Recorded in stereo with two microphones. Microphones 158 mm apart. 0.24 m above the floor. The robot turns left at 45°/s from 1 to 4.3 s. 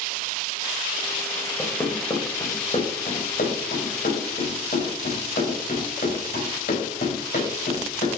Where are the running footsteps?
5° right (ahead or behind), 2 m; by 8.1 s 80° left, 5.5 m.